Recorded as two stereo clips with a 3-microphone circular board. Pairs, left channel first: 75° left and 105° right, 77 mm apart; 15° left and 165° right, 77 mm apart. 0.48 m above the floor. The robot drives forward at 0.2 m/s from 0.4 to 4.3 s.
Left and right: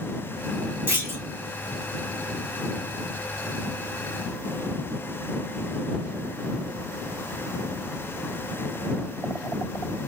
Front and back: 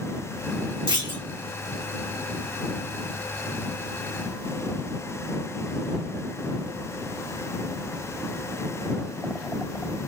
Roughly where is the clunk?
Behind.